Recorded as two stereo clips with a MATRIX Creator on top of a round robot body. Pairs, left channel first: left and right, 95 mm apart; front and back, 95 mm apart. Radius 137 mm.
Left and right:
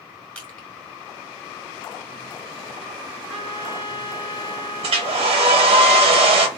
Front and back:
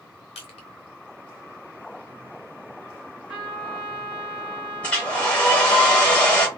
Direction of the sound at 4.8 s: 80° right.